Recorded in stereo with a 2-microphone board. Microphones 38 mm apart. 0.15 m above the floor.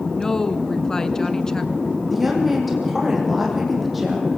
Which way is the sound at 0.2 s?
15° left (ahead or behind).